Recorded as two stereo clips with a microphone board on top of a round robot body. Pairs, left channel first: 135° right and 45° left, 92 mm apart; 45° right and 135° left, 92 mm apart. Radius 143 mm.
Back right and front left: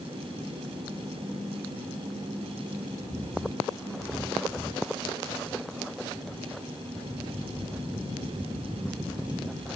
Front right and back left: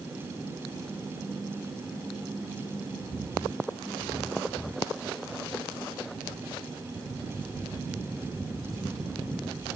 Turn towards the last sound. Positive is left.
No sound to turn to.